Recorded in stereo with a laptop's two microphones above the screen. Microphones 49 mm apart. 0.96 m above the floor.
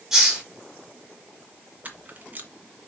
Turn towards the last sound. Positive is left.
turn(degrees=-35)  # may be behind; listen again after turning